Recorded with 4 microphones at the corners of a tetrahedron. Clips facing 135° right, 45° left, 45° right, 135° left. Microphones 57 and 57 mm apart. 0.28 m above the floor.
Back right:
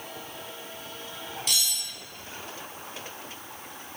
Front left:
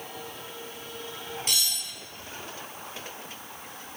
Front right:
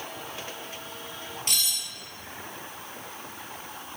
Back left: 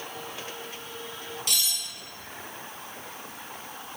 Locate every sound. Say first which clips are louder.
1.5 s cutlery clinking: back right 1 dB, even; 5° right, 1.1 m